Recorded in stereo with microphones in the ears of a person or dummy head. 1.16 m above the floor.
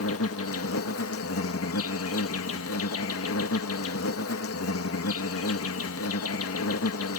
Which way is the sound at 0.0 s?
65° left (ahead or behind).